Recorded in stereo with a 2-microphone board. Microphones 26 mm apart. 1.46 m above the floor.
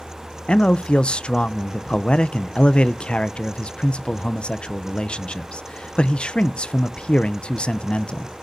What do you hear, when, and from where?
0.5 s a man speaking: 40° left (ahead or behind), 0.6 m